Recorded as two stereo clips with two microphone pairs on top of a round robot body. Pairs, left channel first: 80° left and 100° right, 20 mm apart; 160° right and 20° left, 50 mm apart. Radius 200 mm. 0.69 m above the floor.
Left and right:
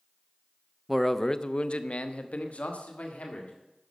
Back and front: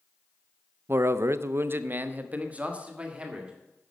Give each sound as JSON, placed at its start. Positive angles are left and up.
{"t": 0.9, "sound": "a man speaking", "azimuth_deg": -5, "distance_m": 0.8}